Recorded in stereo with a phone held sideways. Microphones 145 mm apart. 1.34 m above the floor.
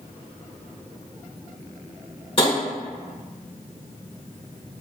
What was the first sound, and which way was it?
Tapping, 40° left (ahead or behind).